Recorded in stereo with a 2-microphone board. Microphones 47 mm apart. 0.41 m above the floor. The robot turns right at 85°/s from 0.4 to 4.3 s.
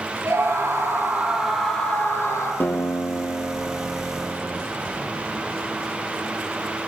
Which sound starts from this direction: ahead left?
A guitar, at 2.6 s.